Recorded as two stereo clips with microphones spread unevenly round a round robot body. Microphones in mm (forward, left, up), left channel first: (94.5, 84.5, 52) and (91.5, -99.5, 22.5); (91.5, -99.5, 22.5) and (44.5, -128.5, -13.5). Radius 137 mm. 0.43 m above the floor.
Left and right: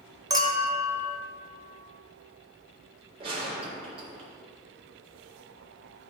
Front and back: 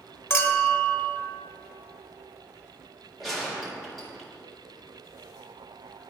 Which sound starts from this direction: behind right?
A gunshot, at 3.2 s.